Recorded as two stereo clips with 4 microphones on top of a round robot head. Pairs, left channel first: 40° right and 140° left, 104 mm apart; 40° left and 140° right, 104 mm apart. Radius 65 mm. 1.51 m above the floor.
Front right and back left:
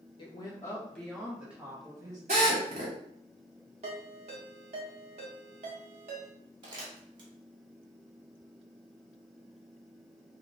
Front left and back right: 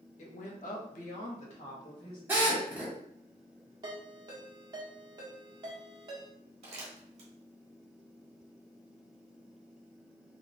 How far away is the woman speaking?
About 0.9 m.